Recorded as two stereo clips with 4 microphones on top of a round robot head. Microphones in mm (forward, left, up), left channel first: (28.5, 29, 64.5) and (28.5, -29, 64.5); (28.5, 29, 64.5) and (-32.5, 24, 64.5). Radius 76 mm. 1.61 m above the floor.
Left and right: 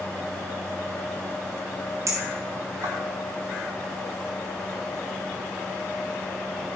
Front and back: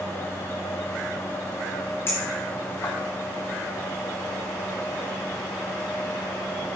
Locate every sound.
2.1 s a clink: 60° right, 1.7 m